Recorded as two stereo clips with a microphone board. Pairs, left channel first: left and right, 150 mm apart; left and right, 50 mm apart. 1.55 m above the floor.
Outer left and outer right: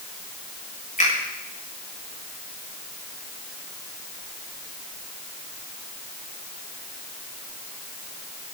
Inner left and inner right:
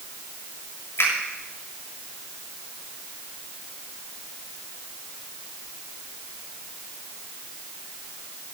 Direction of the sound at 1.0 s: 60° left (ahead or behind).